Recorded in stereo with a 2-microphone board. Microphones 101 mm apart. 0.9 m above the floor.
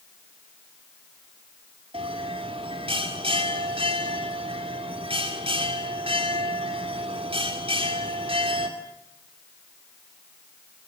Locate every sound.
1.9 s a bell: 75° right (ahead or behind), 3 m